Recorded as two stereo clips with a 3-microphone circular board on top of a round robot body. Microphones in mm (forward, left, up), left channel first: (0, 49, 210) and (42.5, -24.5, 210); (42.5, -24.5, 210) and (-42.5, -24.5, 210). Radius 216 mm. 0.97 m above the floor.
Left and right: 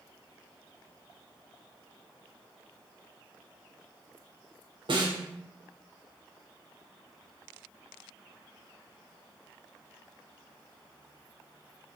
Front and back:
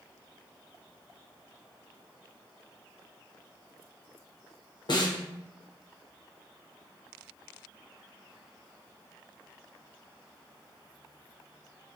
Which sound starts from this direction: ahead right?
A snare drum, at 4.9 s.